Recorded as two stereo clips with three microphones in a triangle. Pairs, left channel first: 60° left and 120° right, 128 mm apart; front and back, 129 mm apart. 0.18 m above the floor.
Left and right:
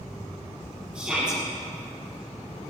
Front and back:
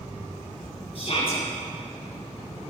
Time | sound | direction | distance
0.9 | a shout | 35° right | 5 m